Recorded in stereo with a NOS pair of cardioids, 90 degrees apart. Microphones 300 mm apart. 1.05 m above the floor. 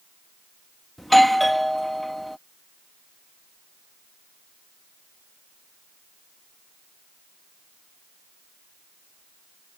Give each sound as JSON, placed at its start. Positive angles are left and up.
{"t": 1.0, "sound": "a doorbell", "azimuth_deg": 0}